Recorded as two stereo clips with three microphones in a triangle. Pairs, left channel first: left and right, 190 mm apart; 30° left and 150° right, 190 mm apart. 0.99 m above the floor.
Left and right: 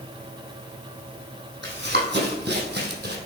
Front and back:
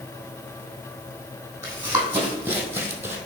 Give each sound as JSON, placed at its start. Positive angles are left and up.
{"t": 1.6, "sound": "running footsteps", "azimuth_deg": -75, "distance_m": 3.0}